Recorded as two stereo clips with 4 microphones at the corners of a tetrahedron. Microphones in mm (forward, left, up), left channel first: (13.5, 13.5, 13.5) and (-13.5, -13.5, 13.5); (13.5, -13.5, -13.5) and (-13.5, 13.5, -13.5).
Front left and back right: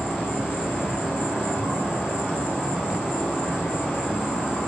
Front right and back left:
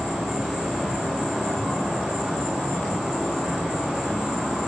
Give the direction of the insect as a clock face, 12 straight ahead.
10 o'clock.